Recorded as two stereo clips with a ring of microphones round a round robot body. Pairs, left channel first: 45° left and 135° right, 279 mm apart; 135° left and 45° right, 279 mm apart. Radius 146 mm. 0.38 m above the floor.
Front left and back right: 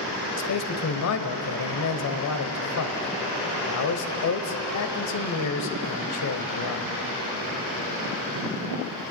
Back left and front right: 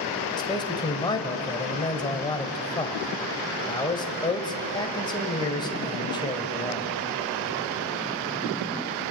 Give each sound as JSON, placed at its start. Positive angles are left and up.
{"t": 0.4, "sound": "a man speaking", "azimuth_deg": 60, "distance_m": 1.6}